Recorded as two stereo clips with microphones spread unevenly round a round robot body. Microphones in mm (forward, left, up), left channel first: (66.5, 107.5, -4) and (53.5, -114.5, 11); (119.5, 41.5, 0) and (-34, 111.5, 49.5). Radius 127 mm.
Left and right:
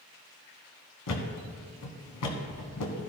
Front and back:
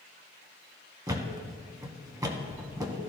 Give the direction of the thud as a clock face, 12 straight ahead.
9 o'clock.